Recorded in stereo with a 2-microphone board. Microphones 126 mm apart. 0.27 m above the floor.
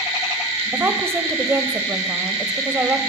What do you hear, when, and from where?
0.7 s a woman speaking: 20° right (ahead or behind), 0.9 m